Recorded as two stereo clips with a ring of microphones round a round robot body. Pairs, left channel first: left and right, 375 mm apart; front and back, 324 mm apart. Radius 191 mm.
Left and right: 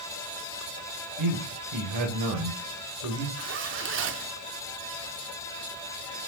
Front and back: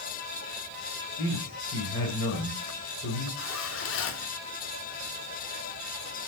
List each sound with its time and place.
1.2 s a man speaking: 55° right, 2.5 m
3.4 s a zipper: 40° right, 1.3 m